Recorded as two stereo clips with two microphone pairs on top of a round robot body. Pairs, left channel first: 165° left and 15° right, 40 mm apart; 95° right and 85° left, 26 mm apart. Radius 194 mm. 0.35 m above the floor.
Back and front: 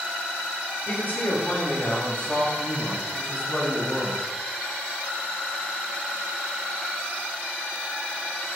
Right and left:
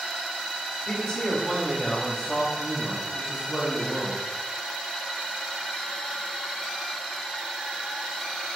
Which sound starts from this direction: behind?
A man speaking, at 0.9 s.